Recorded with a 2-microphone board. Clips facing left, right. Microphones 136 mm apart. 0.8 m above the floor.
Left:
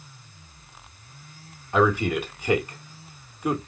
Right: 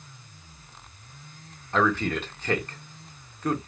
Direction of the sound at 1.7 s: 10° left (ahead or behind).